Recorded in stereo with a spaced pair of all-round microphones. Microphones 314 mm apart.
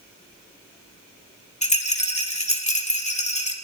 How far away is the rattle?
About 1.6 m.